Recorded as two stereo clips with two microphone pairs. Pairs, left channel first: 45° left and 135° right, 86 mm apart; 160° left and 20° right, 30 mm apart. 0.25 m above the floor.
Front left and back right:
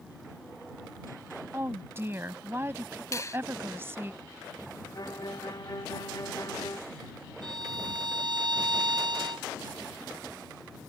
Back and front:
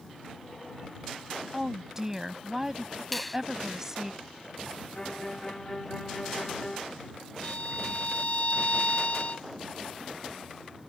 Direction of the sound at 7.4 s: 160° right.